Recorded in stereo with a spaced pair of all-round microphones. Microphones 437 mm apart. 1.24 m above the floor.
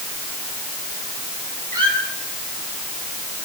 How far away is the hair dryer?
No hair dryer in this recording.